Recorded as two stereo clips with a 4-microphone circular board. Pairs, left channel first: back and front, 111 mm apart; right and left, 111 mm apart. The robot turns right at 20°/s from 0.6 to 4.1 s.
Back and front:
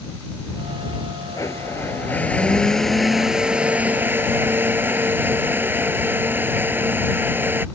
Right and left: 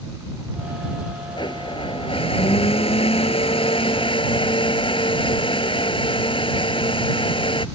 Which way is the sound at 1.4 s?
125° right.